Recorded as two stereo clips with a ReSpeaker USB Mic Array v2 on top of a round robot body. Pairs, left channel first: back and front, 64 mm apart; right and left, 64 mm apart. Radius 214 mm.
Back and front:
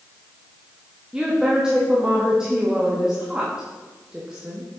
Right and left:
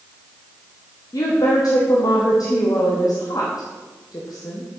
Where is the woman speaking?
80° right, 1.4 m.